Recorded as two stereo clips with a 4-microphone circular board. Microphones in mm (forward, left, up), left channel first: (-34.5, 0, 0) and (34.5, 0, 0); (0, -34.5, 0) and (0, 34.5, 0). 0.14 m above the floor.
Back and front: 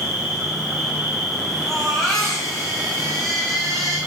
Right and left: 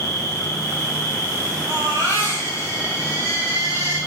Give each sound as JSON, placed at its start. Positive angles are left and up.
{"t": 0.0, "sound": "an insect", "azimuth_deg": 75, "distance_m": 5.0}
{"t": 1.7, "sound": "a baby crying", "azimuth_deg": 100, "distance_m": 5.0}